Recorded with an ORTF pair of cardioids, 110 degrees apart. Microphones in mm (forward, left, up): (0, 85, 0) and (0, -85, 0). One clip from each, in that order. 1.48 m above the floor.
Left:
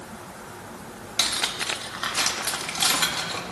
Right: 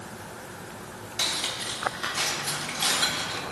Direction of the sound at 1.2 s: 35° left.